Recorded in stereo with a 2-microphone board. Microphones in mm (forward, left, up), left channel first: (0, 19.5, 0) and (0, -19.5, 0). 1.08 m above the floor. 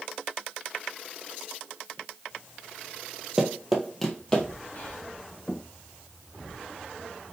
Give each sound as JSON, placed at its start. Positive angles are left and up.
{"t": 3.4, "sound": "running footsteps", "side_deg": -15, "distance_m": 1.1}
{"t": 4.7, "sound": "whispering", "side_deg": 45, "distance_m": 1.2}